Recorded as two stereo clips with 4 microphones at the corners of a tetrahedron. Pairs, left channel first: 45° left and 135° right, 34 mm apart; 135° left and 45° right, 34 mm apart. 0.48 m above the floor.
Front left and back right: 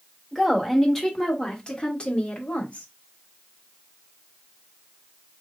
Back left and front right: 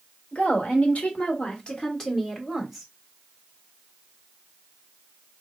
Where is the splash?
No splash in this recording.